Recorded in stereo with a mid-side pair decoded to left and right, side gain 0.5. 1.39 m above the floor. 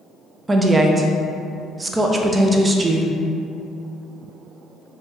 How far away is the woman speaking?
About 0.5 m.